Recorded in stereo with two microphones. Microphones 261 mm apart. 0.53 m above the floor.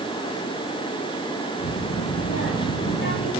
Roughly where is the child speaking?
Left.